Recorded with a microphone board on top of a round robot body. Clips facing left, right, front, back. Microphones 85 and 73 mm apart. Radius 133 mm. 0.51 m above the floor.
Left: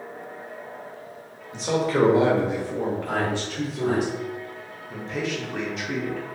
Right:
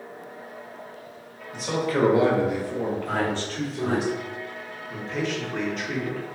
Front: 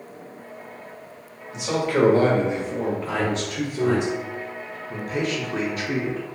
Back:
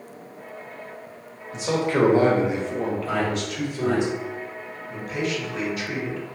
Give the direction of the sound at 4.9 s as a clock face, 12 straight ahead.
12 o'clock.